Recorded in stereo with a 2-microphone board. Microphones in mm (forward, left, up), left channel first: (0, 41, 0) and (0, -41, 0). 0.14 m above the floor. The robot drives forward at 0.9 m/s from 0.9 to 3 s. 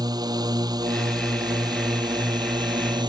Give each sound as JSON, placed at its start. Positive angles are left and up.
{"t": 0.0, "sound": "a drone", "side_deg": -60}